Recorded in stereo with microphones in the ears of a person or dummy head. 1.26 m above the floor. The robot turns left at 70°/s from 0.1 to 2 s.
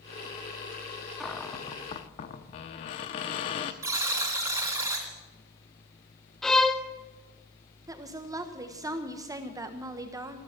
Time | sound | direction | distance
1.2 | a cupboard door | 175° left | 0.8 m
3.8 | a buzzer | 15° right (ahead or behind) | 3 m
6.4 | a violin | 5° left (ahead or behind) | 0.7 m
7.9 | a woman speaking | 15° right (ahead or behind) | 1.3 m